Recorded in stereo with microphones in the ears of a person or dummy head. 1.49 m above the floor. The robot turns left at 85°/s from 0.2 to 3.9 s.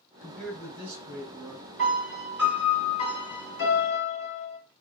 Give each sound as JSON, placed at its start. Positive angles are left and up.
{"t": 0.2, "sound": "a man speaking", "azimuth_deg": 20, "distance_m": 2.5}
{"t": 1.8, "sound": "a piano", "azimuth_deg": -125, "distance_m": 2.5}